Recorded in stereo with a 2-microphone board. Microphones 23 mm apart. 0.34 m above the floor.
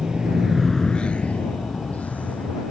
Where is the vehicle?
40° right (ahead or behind); by 2.7 s 85° left.